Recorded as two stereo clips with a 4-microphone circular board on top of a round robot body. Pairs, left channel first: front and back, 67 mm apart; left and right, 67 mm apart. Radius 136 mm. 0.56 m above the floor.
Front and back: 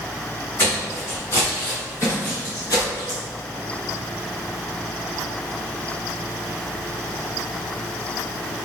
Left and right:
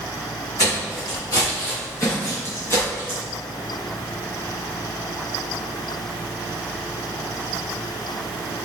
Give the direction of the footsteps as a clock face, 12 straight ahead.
10 o'clock.